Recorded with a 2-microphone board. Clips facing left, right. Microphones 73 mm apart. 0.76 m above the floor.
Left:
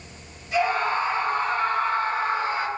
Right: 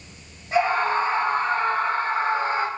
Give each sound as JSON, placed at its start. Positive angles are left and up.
{"t": 0.5, "sound": "a scream", "side_deg": -45, "distance_m": 7.0}